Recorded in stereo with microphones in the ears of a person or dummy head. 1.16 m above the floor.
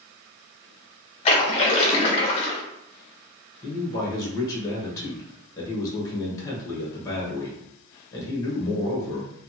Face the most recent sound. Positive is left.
turn(degrees=20)  # may be behind; listen again after turning